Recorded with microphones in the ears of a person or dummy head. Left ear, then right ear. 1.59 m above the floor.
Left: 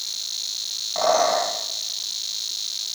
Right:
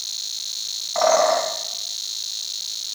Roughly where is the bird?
Right.